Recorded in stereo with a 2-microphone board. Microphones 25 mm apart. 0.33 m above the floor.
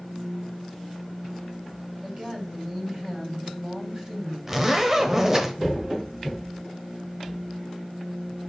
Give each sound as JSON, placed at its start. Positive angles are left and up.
{"t": 2.0, "sound": "a woman speaking", "side_deg": -35, "distance_m": 2.5}
{"t": 4.5, "sound": "a zipper", "side_deg": -20, "distance_m": 0.9}